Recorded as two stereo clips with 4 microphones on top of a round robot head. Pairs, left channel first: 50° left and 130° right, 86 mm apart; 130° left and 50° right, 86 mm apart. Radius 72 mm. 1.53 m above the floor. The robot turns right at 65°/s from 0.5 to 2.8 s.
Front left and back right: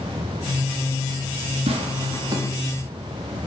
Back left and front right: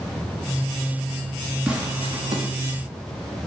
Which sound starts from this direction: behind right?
Tearing paper, at 1.7 s.